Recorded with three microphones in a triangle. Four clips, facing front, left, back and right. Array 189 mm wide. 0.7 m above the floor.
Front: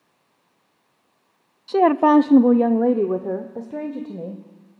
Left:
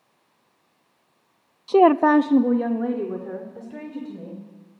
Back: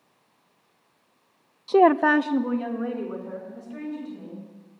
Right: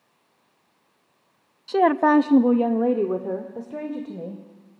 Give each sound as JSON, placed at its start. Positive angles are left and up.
{"t": 1.7, "sound": "a woman speaking", "azimuth_deg": 125, "distance_m": 0.6}